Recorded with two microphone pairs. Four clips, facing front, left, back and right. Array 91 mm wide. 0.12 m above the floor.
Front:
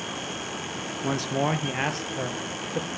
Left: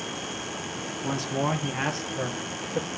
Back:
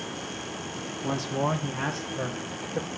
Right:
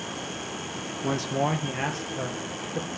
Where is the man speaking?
20° right, 1.3 m; by 2.9 s 35° left, 3 m.